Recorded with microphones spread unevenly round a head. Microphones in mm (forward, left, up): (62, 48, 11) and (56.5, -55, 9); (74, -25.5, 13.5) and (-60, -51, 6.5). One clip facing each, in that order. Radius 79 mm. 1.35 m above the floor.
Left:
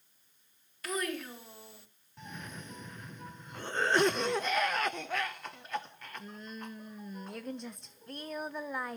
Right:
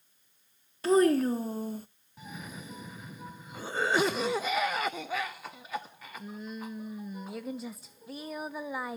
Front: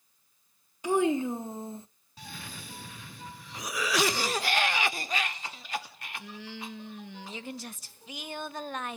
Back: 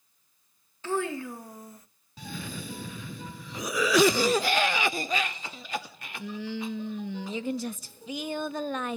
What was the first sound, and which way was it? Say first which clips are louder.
A child speaking: right 14 dB, front 5 dB; 50° right.